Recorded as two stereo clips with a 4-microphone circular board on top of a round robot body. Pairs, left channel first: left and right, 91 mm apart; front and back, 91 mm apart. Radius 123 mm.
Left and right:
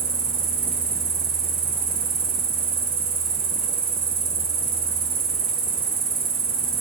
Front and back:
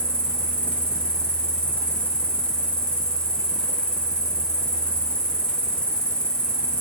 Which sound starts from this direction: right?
An insect, at 0.0 s.